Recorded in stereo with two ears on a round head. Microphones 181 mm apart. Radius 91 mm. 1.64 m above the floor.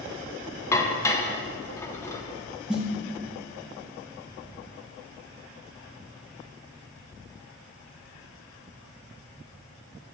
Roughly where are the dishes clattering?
Centre.